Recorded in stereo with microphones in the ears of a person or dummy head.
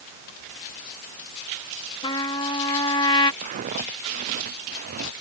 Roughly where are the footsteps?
Right.